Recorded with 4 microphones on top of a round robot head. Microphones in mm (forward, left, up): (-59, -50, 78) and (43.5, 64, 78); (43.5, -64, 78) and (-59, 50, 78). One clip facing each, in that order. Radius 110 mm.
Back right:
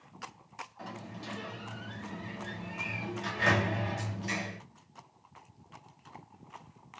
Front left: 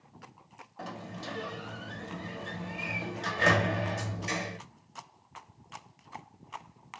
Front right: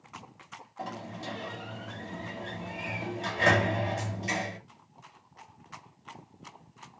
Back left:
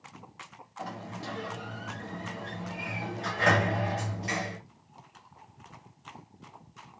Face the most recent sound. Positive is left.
turn(degrees=15)